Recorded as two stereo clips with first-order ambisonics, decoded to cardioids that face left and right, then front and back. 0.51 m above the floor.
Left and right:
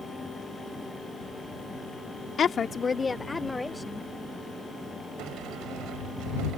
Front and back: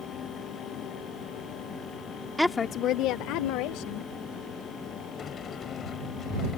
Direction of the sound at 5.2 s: 60° right.